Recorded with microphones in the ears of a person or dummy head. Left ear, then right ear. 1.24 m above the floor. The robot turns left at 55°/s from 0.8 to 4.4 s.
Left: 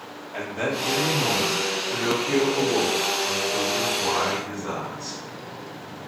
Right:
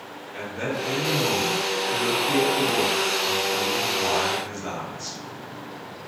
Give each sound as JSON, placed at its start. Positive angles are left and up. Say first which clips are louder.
{"t": 0.3, "sound": "a man speaking", "louder": "left 2 dB", "azimuth_deg": 160, "distance_m": 0.9}